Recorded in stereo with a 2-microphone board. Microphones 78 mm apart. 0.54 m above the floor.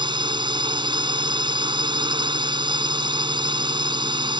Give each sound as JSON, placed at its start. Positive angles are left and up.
{"t": 0.0, "sound": "a drone", "side_deg": -75}